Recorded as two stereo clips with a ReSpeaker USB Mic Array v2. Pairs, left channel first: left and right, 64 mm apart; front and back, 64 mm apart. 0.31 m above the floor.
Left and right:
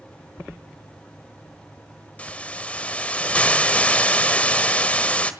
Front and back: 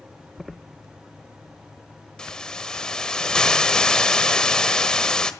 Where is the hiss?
55° left, 1.4 m.